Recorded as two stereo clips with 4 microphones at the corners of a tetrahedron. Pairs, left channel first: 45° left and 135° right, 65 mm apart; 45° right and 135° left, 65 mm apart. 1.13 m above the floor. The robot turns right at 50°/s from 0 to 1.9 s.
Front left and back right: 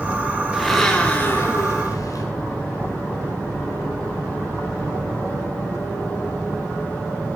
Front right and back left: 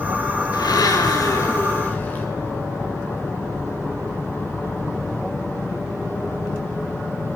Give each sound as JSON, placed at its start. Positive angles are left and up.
{"t": 0.5, "sound": "a blender", "azimuth_deg": -50, "distance_m": 3.0}